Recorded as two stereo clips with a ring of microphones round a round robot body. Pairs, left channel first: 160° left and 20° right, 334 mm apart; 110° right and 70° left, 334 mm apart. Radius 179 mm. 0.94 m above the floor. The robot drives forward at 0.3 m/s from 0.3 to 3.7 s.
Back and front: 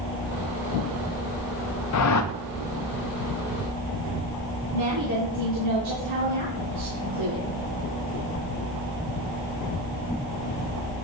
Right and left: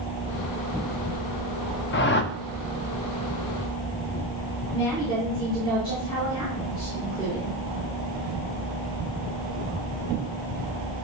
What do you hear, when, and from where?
1.9 s a whoosh: 165° right, 0.6 m; by 2.3 s 170° right, 0.7 m
4.7 s a woman speaking: 35° right, 4.5 m